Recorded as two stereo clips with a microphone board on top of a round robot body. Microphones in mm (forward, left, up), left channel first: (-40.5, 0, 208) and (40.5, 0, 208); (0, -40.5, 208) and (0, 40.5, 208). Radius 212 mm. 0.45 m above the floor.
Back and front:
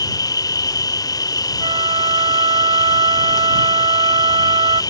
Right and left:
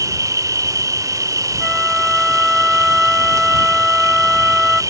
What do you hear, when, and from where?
0.0 s an insect: 140° left
1.6 s a flute: 5° left